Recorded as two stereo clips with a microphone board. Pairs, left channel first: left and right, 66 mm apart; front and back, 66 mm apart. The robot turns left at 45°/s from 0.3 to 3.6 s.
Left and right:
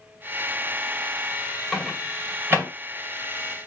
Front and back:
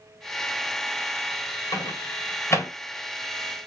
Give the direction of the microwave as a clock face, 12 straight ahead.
12 o'clock.